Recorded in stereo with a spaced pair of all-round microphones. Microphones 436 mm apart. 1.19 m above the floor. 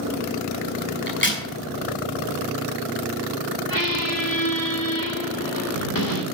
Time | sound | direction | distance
1.1 | a crack | 25° left (ahead or behind) | 5.5 m
3.7 | a squeak | 50° left (ahead or behind) | 2.5 m